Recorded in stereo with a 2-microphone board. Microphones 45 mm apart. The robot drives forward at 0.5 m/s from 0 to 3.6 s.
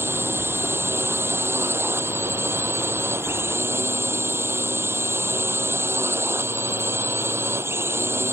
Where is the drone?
65° right (ahead or behind); by 8.3 s 70° right (ahead or behind).